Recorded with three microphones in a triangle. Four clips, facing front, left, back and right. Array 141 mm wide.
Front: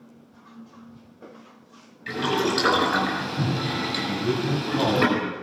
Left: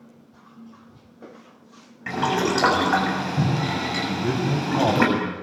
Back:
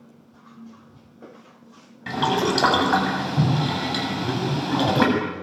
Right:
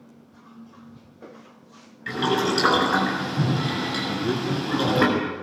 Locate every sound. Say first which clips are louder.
2.1 s boiling: left 1 dB, back 2 dB; 145° left, 7.5 m
4.1 s a man speaking: left 1 dB, front 1 dB; 80° left, 7 m